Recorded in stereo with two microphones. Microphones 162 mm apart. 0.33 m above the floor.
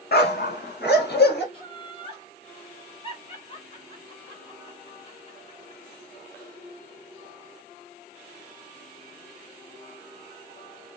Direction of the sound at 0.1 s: 65° left (ahead or behind).